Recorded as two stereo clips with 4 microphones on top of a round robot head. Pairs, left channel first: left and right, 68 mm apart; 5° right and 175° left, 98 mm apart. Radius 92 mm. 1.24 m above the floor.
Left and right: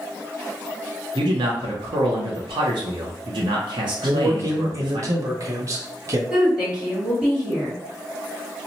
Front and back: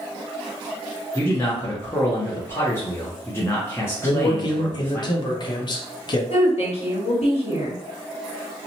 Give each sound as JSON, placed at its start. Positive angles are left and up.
{"t": 1.1, "sound": "a man speaking", "azimuth_deg": -75, "distance_m": 0.6}
{"t": 4.0, "sound": "a man speaking", "azimuth_deg": -45, "distance_m": 0.6}
{"t": 6.3, "sound": "a woman speaking", "azimuth_deg": -15, "distance_m": 1.4}